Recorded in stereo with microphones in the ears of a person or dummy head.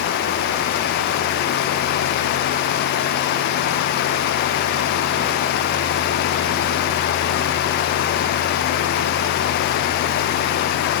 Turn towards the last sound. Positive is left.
No sound to turn to.